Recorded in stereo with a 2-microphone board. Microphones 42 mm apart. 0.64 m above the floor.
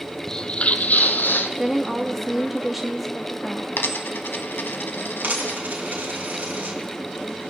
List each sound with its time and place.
0.3 s footsteps: 15° left (ahead or behind), 0.7 m; by 1.5 s 55° left (ahead or behind), 1.1 m
1.6 s a woman speaking: 5° right (ahead or behind), 0.7 m
3.8 s a dropped coin: 60° left (ahead or behind), 1.1 m
5.2 s a dropped coin: 45° right (ahead or behind), 3.5 m